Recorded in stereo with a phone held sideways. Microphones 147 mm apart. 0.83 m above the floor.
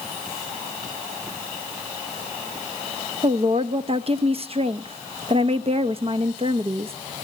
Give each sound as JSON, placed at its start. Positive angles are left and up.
{"t": 3.2, "sound": "a woman speaking", "side_deg": -40, "distance_m": 0.6}